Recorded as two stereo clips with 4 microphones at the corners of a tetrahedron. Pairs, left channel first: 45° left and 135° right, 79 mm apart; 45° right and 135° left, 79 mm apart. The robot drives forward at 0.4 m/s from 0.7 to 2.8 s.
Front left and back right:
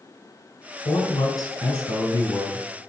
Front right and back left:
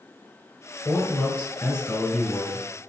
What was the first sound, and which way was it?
A man speaking, 35° left.